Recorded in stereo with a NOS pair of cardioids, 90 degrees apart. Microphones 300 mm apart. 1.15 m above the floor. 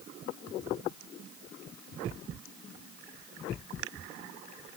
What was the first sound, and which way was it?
Only background noise.